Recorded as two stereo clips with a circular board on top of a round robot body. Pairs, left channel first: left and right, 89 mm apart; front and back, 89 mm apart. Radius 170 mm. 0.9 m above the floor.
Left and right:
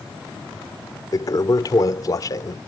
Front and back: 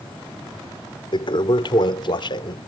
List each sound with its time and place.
1.1 s a toilet flushing: 35° left